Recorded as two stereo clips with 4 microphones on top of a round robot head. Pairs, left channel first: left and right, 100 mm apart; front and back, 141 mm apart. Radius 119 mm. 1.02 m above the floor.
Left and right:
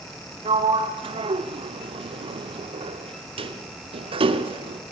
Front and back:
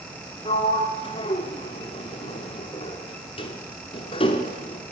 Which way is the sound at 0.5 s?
60° right.